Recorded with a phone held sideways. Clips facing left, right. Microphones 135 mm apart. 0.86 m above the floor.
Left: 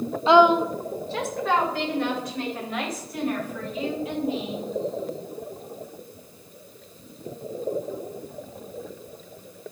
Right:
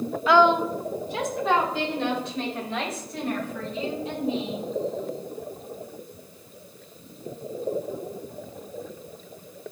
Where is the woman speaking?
25° left (ahead or behind), 0.6 m; by 4.7 s 30° right (ahead or behind), 7 m.